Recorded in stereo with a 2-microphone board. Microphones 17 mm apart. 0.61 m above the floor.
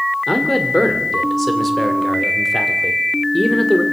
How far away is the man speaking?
About 2.5 m.